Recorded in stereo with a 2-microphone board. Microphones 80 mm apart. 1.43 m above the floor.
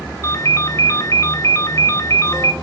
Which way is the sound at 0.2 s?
40° left (ahead or behind).